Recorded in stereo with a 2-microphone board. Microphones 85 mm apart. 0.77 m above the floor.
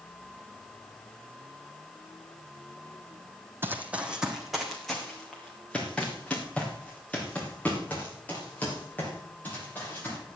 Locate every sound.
3.6 s running footsteps: 25° right (ahead or behind), 1.5 m; by 10.2 s 20° left (ahead or behind), 9 m